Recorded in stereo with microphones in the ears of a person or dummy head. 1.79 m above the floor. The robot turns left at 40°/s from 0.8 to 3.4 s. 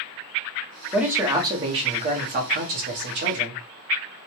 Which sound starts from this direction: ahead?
A man speaking, at 0.9 s.